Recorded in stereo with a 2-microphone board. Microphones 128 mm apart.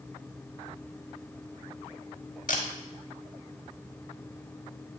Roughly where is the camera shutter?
Left.